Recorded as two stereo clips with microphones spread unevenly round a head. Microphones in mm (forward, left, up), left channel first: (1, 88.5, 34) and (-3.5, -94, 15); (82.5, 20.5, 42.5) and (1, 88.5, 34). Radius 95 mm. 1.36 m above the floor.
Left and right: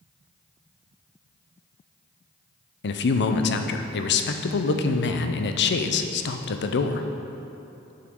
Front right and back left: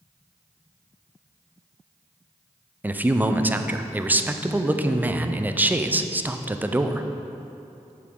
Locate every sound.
2.8 s a man speaking: 70° left, 0.6 m